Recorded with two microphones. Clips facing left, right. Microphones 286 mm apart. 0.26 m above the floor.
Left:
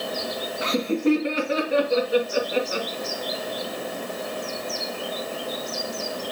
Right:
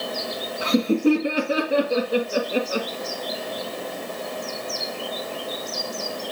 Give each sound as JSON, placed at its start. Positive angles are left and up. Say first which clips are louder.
{"t": 0.6, "sound": "laughter", "louder": "right 3 dB", "side_deg": -35, "distance_m": 3.0}